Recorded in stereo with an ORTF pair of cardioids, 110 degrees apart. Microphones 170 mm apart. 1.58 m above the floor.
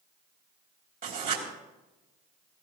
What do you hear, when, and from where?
1.0 s writing: 50° right, 3 m